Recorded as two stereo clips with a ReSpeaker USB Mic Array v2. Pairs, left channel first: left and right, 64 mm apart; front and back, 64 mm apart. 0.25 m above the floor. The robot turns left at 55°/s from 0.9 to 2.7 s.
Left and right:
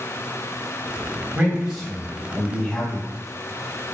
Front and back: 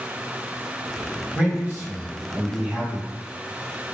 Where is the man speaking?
140° right, 1.1 m; by 3.1 s 145° left, 1.1 m.